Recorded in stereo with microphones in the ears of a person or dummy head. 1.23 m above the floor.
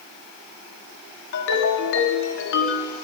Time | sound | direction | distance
1.3 | a ringtone | 70° left (ahead or behind) | 1.9 m